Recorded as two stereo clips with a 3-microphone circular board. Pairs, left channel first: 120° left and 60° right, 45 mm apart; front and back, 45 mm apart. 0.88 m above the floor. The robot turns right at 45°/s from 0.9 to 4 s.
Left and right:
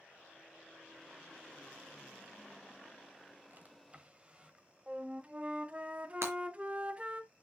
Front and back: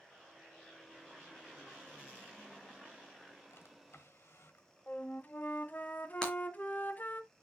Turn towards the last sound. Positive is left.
turn(degrees=-70)